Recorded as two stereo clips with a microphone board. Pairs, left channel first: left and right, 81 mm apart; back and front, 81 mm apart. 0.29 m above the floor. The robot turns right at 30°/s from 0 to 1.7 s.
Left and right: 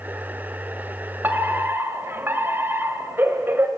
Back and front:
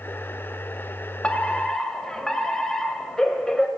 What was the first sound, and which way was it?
A fire alarm, 120° right.